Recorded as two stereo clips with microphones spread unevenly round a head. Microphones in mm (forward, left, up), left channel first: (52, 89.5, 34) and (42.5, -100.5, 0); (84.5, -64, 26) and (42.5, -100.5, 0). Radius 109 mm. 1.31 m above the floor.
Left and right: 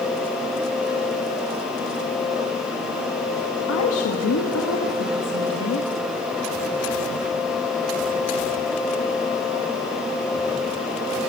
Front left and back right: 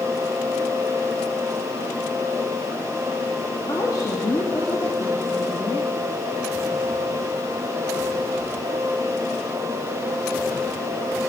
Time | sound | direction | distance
3.7 | a woman speaking | 110° left | 2.0 m